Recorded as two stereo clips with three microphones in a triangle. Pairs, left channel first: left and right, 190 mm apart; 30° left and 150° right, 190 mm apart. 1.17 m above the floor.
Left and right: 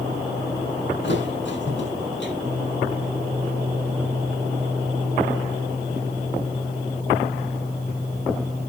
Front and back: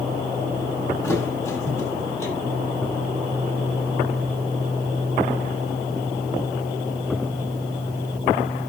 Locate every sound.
1.0 s a thud: 105° left, 6.5 m